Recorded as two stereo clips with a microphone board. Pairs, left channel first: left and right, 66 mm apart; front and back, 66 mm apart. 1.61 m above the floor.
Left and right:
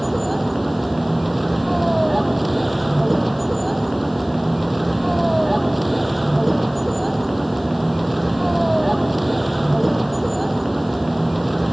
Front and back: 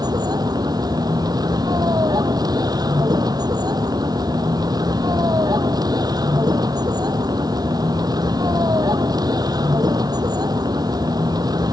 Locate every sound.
0.0 s a vehicle: straight behind